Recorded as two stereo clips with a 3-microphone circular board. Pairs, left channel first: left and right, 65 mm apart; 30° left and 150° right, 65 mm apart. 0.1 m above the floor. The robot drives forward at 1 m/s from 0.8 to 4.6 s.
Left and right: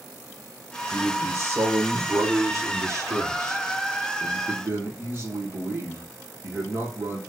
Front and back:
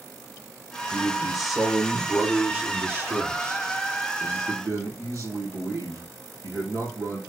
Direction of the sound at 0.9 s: 55° right.